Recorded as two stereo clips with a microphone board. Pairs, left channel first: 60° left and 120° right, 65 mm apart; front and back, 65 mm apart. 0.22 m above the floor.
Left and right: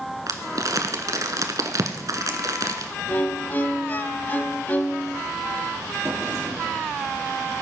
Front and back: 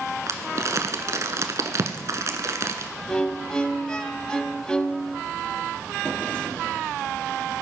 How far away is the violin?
About 0.6 m.